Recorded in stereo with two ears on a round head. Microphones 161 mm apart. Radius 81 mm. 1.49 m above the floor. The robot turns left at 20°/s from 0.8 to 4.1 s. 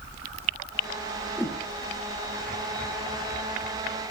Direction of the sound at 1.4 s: 5° right (ahead or behind).